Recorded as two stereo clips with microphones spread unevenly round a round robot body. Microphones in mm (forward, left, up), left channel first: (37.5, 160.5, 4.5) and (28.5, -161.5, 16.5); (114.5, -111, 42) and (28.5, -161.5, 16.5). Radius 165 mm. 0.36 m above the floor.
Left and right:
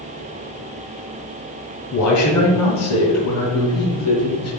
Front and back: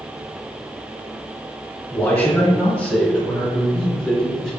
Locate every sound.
1.9 s a man speaking: 110° left, 2.5 m; by 4.5 s 130° left, 3.5 m